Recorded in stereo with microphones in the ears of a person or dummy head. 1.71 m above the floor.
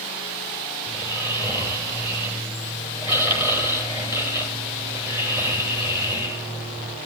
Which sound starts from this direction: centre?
Snoring, at 0.9 s.